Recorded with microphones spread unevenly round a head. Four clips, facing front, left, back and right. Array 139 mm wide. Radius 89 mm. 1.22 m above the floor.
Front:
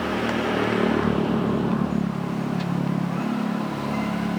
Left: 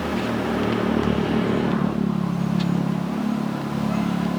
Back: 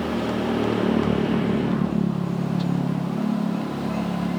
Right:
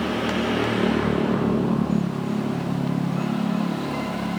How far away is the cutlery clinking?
I don't hear cutlery clinking.